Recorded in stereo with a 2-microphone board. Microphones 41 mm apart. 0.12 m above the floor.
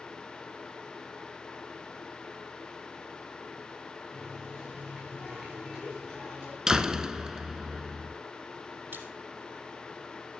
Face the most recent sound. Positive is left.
turn(degrees=-55)  # may be behind; listen again after turning